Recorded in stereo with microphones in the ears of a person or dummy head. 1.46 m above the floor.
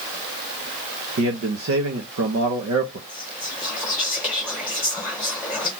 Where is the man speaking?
70° right (ahead or behind), 0.7 m.